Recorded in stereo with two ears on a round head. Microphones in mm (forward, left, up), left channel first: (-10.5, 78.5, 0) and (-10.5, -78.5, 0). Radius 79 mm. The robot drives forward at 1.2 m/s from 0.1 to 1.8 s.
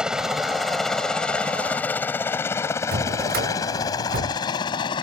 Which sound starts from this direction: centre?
A helicopter, at 0.0 s.